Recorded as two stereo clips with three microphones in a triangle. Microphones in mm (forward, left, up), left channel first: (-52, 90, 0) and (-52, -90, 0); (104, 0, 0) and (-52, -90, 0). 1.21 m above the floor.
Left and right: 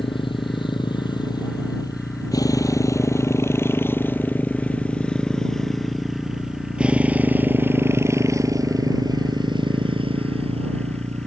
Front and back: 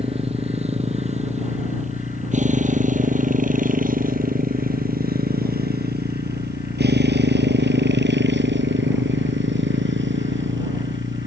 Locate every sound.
0.0 s a motorcycle: 155° left; by 11.3 s 145° right